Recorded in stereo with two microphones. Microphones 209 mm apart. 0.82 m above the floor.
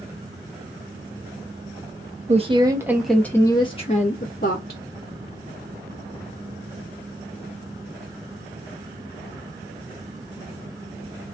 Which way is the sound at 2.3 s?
30° right (ahead or behind).